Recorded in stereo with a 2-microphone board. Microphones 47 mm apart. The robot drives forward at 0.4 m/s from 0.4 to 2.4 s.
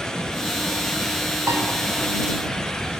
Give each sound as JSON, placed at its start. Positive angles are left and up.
{"t": 1.5, "sound": "a piano", "side_deg": -80, "distance_m": 6.0}